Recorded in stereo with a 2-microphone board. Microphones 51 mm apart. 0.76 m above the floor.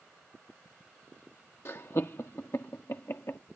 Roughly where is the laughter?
Left.